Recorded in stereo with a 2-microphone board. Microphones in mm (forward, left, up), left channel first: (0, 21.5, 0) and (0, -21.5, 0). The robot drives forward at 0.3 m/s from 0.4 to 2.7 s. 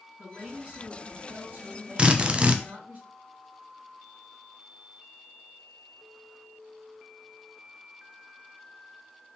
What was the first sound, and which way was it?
A woman speaking, 30° right (ahead or behind).